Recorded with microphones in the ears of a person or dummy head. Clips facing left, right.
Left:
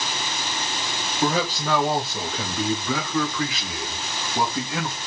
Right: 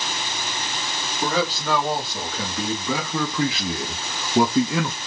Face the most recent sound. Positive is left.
turn(degrees=-85)